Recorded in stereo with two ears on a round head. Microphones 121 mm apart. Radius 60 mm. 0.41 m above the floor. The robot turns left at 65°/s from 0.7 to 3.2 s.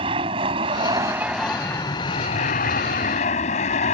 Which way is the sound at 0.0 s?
135° right.